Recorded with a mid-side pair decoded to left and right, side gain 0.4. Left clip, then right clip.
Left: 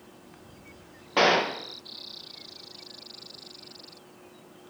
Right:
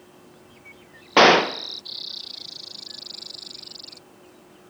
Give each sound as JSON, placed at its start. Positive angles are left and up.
{"t": 1.2, "sound": "a gunshot", "azimuth_deg": -60, "distance_m": 0.5}